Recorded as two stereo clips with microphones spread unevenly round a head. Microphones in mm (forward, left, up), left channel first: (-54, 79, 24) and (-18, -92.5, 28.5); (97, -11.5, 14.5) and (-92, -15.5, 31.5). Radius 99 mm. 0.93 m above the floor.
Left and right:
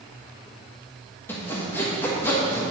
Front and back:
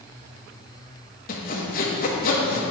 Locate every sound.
1.3 s sawing: 25° left, 1.5 m